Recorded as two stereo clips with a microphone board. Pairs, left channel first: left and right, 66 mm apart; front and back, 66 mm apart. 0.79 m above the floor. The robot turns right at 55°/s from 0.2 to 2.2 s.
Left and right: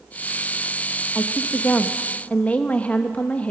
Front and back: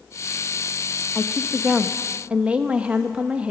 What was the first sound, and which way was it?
A woman speaking, 70° left.